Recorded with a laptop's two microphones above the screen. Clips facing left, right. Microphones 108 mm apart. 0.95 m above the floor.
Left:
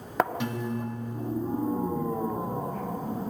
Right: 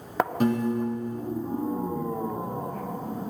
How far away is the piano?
About 0.8 m.